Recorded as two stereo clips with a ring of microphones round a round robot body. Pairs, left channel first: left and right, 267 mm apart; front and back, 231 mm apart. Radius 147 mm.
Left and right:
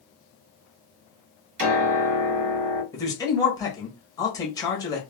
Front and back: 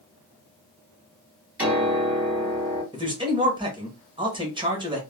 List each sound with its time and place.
1.6 s a piano: 95° right, 1.4 m
2.9 s a man speaking: 145° left, 1.1 m